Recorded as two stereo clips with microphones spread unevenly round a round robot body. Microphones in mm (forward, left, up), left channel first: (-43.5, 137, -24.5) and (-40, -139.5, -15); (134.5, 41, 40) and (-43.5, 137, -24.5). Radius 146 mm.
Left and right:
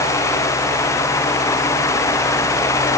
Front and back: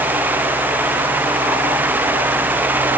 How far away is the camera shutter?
I don't hear a camera shutter.